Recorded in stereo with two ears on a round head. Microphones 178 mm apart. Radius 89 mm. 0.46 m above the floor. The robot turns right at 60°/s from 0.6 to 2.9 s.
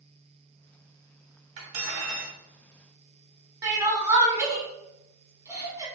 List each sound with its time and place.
1.6 s cutlery clinking: 105° right, 1.7 m; by 2.4 s 55° right, 1.7 m
3.6 s crying: 15° right (ahead or behind), 0.9 m